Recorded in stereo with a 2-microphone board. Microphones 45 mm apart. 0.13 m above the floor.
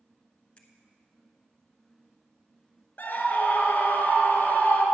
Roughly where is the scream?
Left.